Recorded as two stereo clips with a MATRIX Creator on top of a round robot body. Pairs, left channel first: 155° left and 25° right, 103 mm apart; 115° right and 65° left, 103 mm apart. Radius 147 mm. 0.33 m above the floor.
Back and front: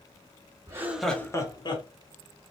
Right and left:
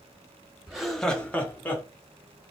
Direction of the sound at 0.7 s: 10° right.